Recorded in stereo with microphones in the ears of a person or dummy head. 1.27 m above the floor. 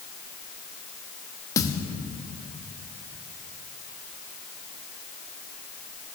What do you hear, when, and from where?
1.6 s a thud: 20° left (ahead or behind), 0.7 m